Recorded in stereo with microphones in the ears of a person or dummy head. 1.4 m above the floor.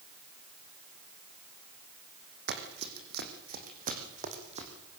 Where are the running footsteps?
60° right (ahead or behind), 5 m; by 4.7 s 35° right (ahead or behind), 5 m.